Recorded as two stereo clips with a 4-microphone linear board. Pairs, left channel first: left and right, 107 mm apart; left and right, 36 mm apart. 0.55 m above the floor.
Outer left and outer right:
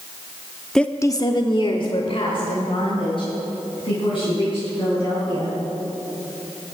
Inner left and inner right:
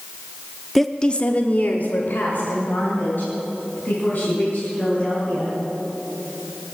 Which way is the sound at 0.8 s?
5° left (ahead or behind).